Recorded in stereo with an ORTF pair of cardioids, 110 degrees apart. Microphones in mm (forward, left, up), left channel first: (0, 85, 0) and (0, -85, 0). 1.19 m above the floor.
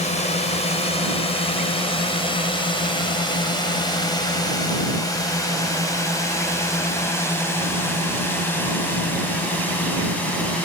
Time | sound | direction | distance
0.0 | a drone | 40° left | ?